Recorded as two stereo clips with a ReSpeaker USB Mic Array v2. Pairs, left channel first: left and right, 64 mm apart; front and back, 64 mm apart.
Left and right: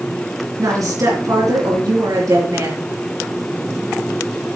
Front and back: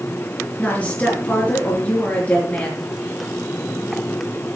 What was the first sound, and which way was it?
A woman speaking, 65° right.